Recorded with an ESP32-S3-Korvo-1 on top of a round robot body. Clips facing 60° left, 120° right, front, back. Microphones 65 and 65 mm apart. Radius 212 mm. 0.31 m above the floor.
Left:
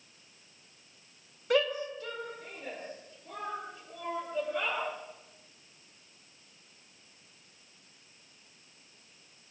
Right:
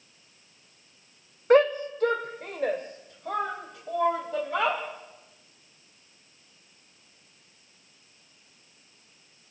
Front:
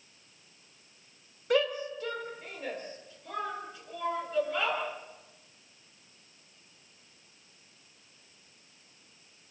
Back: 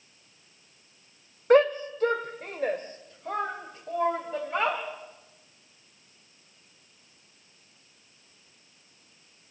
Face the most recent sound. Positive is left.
turn(degrees=-135)